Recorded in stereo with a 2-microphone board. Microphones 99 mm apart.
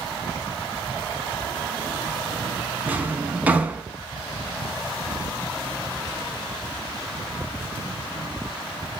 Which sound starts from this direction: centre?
A drawer, at 2.9 s.